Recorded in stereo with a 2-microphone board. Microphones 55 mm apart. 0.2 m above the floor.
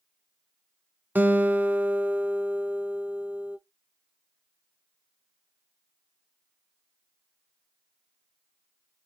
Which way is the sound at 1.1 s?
35° right (ahead or behind).